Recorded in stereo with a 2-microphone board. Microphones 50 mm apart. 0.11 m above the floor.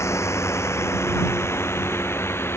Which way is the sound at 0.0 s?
60° left (ahead or behind).